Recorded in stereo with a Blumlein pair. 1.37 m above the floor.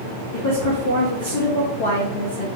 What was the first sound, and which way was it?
A woman speaking, 60° left.